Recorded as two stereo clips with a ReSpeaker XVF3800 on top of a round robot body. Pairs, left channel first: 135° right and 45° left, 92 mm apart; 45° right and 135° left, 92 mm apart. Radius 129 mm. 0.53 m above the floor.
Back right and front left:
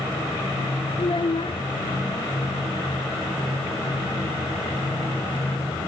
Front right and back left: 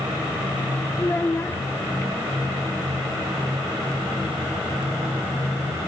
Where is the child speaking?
110° right.